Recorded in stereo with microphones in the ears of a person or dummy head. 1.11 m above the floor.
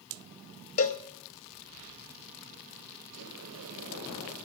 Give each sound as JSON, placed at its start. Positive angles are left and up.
{"t": 0.8, "sound": "a cowbell", "side_deg": 40, "distance_m": 0.7}
{"t": 3.1, "sound": "a sliding door", "side_deg": -75, "distance_m": 3.5}